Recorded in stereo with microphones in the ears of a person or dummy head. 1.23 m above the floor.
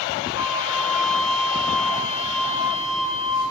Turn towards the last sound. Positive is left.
turn(degrees=85)